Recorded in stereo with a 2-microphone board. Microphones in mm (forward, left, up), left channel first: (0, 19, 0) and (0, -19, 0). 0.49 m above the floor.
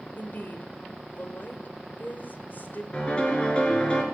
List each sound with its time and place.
0.2 s a woman speaking: 50° left (ahead or behind), 2 m
2.9 s a piano: 30° left (ahead or behind), 4 m